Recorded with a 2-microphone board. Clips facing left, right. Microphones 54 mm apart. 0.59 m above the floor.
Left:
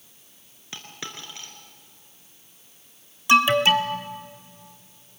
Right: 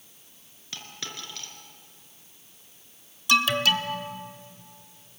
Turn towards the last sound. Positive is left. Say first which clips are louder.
# left 5 dB
turn(degrees=25)  # may be behind; listen again after turning